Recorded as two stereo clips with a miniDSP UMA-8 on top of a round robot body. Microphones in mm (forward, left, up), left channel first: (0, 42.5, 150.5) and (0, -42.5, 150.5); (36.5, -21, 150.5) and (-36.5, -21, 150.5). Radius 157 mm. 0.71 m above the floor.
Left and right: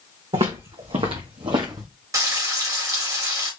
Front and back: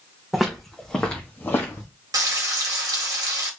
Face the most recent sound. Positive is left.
turn(degrees=-140)